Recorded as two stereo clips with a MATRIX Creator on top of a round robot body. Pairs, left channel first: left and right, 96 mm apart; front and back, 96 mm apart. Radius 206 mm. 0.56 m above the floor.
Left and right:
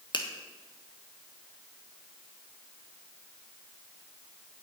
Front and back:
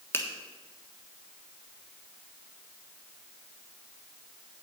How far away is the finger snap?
About 1.6 m.